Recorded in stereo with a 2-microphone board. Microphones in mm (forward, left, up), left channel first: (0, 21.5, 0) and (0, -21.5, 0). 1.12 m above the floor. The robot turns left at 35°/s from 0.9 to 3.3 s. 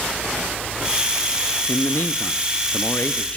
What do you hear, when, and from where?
1.7 s a man speaking: 95° left, 1.2 m; by 3.4 s 40° left, 1.2 m